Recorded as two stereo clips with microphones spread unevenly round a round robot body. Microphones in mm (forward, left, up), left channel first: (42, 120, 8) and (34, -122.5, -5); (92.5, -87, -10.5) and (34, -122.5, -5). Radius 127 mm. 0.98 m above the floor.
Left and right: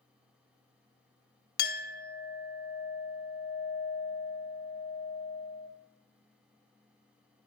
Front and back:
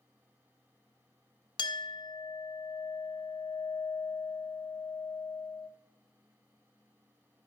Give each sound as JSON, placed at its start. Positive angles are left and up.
{"t": 1.6, "sound": "a clink", "azimuth_deg": 35, "distance_m": 0.6}